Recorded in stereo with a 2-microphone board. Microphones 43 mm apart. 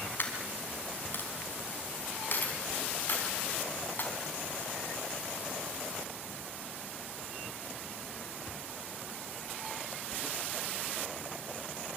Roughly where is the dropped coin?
Left.